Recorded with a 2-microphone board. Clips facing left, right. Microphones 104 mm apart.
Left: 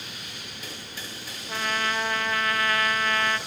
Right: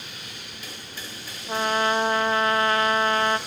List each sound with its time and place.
1.5 s a trumpet: 30° right (ahead or behind), 0.7 m